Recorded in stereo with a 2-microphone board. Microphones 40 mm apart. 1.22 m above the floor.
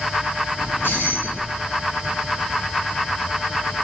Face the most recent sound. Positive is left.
turn(degrees=65)  # may be behind; listen again after turning